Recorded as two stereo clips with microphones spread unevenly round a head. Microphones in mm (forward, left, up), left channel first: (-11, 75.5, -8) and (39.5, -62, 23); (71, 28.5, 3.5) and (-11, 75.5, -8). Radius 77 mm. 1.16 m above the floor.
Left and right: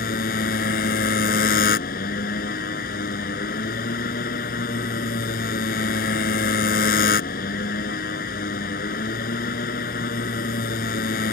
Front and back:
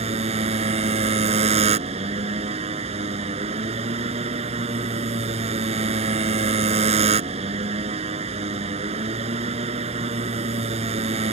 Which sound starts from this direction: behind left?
A motorcycle, at 0.0 s.